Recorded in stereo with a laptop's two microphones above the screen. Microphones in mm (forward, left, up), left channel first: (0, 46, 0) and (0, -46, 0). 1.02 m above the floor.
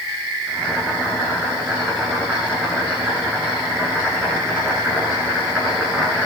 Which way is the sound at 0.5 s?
10° right (ahead or behind).